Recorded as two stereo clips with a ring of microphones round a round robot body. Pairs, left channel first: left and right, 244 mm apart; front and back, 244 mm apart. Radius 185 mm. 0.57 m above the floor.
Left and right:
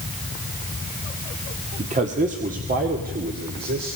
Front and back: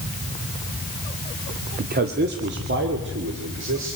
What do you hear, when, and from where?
1.8 s a man speaking: 145° right, 1.5 m; by 4.0 s 140° right, 2.5 m